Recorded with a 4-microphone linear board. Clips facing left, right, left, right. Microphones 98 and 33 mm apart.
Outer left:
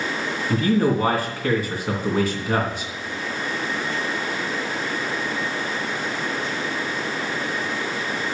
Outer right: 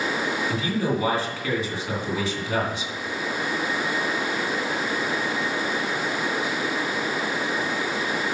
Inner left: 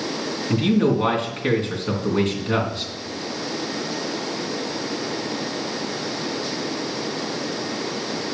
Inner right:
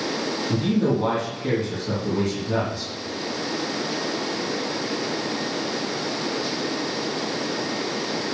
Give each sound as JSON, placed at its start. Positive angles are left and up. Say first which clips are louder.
{"t": 0.5, "sound": "a man speaking", "louder": "outer left 10 dB, inner left 4 dB", "side_deg": 50, "distance_m": 2.5}